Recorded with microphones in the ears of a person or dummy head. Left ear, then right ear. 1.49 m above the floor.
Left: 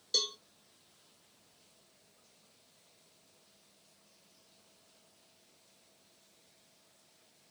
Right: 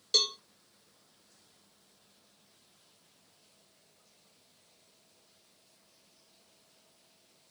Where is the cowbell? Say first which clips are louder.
Right 5 dB; 35° right (ahead or behind), 0.9 m.